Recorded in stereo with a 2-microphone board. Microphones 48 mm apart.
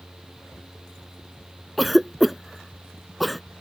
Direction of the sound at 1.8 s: Centre (ahead or behind).